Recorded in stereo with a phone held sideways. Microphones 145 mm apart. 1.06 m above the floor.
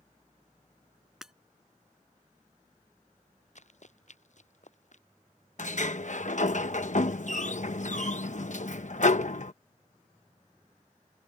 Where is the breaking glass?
5° right (ahead or behind).